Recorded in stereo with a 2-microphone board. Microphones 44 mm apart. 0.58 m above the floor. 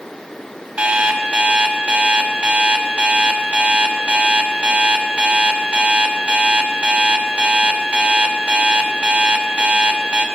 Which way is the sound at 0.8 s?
30° right (ahead or behind).